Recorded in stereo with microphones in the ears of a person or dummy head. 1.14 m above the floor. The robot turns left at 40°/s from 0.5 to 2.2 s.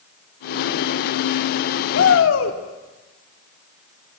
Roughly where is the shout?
Left.